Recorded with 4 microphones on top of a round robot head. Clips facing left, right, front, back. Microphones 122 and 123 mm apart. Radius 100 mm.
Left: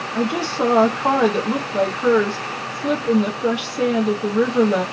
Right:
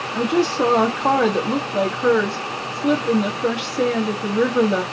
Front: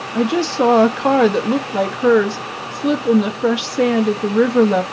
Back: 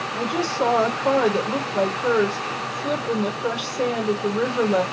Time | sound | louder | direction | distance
0.1 | a woman speaking | right 3 dB, front 8 dB | 5° left | 0.8 m